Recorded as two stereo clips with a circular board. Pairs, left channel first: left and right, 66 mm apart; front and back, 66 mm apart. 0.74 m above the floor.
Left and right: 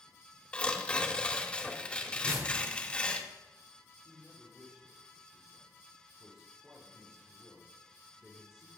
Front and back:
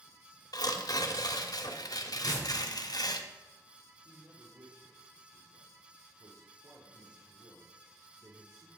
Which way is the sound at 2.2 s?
125° right.